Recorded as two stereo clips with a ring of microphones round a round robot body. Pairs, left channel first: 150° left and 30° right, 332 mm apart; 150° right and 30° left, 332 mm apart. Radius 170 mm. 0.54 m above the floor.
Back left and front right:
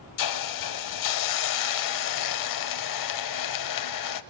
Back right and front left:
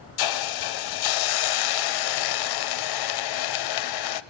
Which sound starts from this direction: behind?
A hiss, at 0.2 s.